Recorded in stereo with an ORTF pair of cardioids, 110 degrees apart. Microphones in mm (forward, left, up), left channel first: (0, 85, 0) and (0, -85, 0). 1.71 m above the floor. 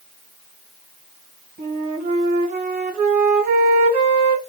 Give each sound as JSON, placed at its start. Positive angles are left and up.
{"t": 1.6, "sound": "a flute", "azimuth_deg": -65, "distance_m": 1.3}